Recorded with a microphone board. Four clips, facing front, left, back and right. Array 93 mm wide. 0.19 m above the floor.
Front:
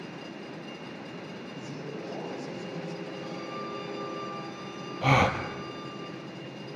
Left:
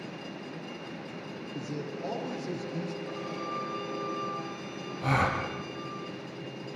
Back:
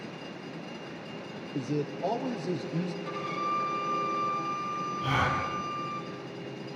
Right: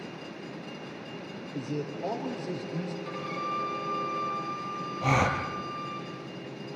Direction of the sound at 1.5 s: 155° right.